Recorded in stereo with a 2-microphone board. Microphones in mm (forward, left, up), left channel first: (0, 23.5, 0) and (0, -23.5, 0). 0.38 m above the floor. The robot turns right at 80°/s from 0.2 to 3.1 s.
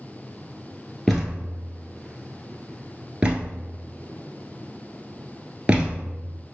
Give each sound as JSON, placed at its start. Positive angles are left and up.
{"t": 1.1, "sound": "a thud", "side_deg": 5, "distance_m": 1.3}